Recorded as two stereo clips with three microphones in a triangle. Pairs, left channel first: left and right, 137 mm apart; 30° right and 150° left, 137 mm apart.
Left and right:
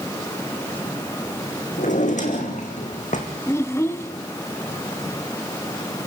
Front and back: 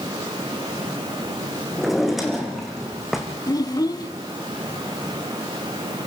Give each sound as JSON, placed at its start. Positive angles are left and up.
{"t": 1.8, "sound": "a drawer", "azimuth_deg": 60, "distance_m": 3.5}
{"t": 3.5, "sound": "a child speaking", "azimuth_deg": 25, "distance_m": 1.0}